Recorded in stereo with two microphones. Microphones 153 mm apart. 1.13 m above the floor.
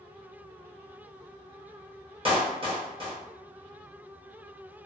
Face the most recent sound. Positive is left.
turn(degrees=-35)  # may be behind; listen again after turning